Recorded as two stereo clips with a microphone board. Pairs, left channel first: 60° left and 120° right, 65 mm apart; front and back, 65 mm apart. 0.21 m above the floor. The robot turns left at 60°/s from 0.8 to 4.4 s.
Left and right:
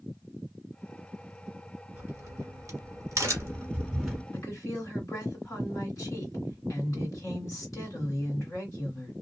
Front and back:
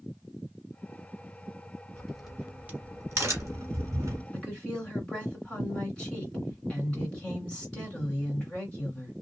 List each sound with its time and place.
1.9 s a crack: 75° right, 1.5 m; by 4.2 s 150° left, 1.5 m
4.3 s a woman speaking: 75° left, 2 m; by 9.1 s 70° left, 2 m